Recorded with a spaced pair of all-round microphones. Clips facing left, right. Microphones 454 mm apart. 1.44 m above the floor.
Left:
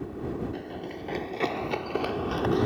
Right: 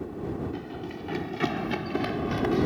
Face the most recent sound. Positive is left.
turn(degrees=-45)  # may be behind; listen again after turning